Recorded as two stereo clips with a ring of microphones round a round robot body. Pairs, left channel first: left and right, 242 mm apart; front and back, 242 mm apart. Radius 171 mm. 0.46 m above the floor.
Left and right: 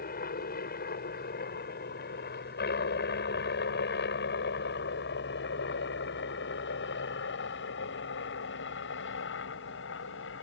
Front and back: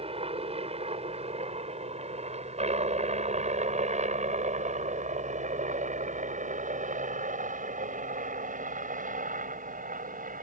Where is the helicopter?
125° left; by 10.4 s 130° left.